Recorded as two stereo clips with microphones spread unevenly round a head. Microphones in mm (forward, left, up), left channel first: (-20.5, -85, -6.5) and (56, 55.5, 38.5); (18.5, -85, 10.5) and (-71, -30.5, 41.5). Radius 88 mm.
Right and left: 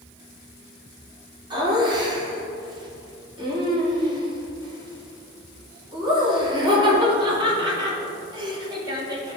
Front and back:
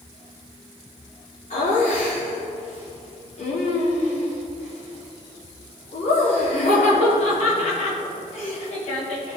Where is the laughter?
5° right, 3 m.